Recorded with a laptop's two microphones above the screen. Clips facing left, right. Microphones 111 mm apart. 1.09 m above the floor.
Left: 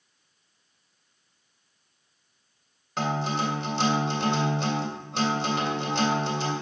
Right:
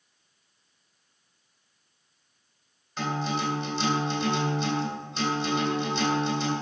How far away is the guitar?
About 2.5 m.